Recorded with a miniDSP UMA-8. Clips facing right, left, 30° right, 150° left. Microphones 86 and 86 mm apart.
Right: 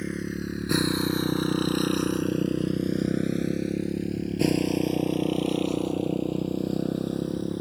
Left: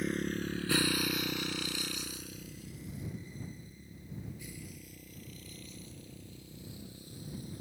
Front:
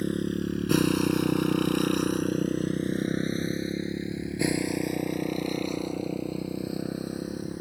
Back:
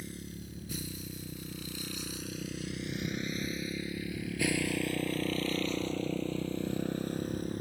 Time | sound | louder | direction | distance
0.0 | a motorcycle | right 3 dB, front 16 dB | straight ahead | ?